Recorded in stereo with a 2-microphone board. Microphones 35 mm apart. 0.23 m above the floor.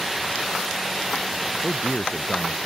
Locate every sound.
1.6 s a man speaking: 55° left (ahead or behind)